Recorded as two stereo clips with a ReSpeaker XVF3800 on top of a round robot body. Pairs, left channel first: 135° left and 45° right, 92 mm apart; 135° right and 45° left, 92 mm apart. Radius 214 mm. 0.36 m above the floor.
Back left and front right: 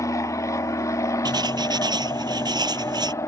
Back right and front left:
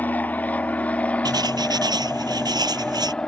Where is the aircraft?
165° left; by 3.3 s 150° left.